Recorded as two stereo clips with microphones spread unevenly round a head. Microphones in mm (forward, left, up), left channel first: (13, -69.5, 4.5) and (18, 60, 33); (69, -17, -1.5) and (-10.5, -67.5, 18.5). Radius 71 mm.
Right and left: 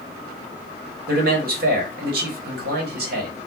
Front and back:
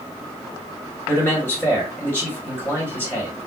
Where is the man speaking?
100° left, 1.3 m.